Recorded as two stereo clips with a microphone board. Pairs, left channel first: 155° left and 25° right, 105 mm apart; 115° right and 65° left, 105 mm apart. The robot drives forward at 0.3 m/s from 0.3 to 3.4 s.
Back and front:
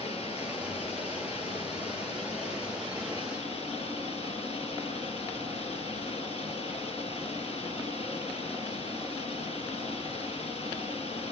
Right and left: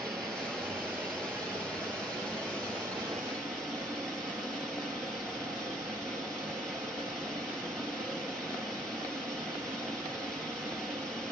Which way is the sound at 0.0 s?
160° left.